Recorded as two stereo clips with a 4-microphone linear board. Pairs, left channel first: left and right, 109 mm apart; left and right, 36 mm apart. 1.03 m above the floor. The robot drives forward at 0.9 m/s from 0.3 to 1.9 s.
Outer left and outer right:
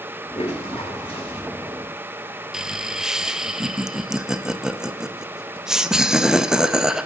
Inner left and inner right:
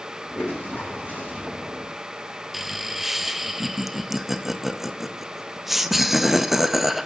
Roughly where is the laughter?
Centre.